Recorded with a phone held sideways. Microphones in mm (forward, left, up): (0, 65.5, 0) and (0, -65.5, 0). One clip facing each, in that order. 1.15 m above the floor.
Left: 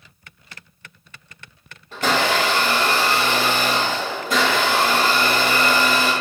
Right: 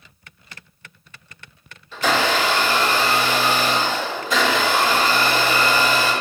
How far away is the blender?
About 0.9 m.